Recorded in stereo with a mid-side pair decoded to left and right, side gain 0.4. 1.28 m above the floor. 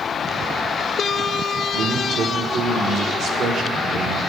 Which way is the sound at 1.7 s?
65° right.